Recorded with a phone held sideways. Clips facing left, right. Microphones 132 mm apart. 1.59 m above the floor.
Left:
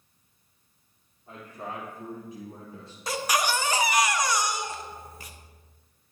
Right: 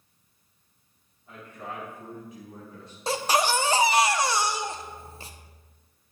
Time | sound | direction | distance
1.3 | a man speaking | 35° left (ahead or behind) | 3.5 m
3.1 | a baby crying | 30° right (ahead or behind) | 0.7 m